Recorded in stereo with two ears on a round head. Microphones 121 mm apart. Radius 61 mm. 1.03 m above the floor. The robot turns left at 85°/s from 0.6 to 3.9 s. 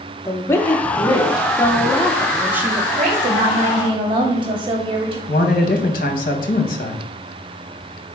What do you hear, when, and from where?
0.2 s a woman speaking: 20° left (ahead or behind), 0.6 m; by 2.9 s 25° right (ahead or behind), 0.6 m
3.0 s a woman speaking: 55° right, 0.8 m; by 5.2 s 130° right, 0.8 m
5.3 s a man speaking: 65° left (ahead or behind), 0.8 m